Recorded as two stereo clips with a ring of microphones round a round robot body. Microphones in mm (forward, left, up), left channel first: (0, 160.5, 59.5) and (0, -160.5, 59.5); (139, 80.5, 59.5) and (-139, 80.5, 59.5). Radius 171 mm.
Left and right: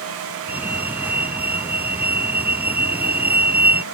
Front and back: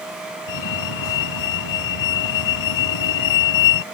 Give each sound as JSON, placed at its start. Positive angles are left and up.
{"t": 0.5, "sound": "a fire alarm", "azimuth_deg": -5}